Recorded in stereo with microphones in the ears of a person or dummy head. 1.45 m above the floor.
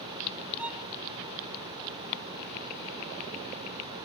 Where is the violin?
5° right (ahead or behind).